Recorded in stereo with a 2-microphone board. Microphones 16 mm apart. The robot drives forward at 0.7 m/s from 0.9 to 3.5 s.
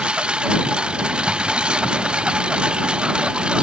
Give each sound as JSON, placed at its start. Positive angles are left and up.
{"t": 0.0, "sound": "a lawn mower", "side_deg": -80}